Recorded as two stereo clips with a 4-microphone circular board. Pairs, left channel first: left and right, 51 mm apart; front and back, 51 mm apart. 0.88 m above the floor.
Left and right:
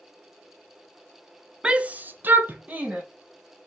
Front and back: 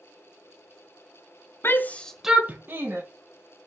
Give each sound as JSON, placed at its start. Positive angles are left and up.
{"t": 1.6, "sound": "a shout", "azimuth_deg": -20, "distance_m": 0.7}